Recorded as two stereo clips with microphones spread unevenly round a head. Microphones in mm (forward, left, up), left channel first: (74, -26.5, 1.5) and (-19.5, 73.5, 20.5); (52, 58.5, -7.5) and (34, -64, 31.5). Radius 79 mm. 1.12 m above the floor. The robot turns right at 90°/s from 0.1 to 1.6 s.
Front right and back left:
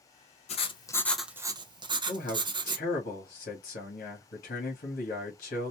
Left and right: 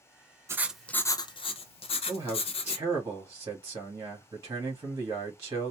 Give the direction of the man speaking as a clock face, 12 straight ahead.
1 o'clock.